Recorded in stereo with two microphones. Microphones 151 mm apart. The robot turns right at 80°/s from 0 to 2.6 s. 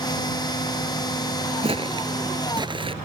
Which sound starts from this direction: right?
Footsteps, at 1.6 s.